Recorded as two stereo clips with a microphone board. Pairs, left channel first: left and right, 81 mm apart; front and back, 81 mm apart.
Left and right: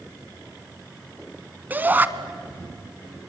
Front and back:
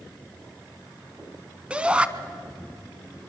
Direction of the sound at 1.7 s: 125° right.